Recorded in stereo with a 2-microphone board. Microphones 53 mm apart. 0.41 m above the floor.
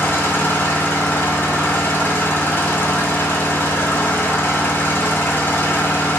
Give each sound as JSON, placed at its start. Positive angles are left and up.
{"t": 0.0, "sound": "an engine running", "side_deg": 45, "distance_m": 1.4}